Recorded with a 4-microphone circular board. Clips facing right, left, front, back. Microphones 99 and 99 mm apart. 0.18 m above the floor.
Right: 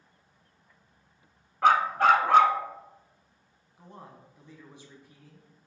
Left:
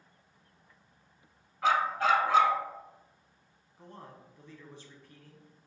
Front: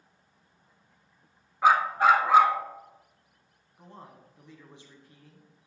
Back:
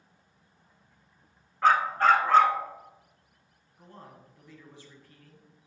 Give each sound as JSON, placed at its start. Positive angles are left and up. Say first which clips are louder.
{"t": 1.6, "sound": "a dog barking", "louder": "right 6 dB, front 1 dB", "azimuth_deg": -80, "distance_m": 0.6}
{"t": 3.8, "sound": "a man speaking", "louder": "right 1 dB, front 1 dB", "azimuth_deg": -35, "distance_m": 1.2}